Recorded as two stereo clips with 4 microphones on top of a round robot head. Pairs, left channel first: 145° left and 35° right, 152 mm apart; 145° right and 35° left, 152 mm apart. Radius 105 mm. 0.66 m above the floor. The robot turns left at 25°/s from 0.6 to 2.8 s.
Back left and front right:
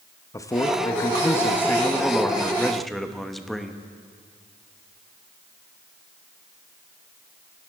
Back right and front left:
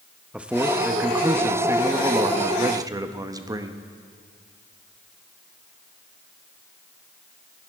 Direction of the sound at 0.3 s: 110° left.